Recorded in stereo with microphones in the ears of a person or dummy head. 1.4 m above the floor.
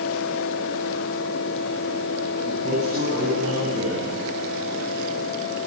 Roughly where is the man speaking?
Right.